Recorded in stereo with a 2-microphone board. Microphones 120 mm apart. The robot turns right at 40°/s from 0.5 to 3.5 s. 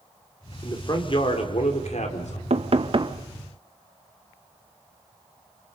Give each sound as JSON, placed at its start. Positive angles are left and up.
{"t": 0.6, "sound": "a man speaking", "azimuth_deg": 30, "distance_m": 4.0}
{"t": 2.5, "sound": "knocking", "side_deg": -65, "distance_m": 1.0}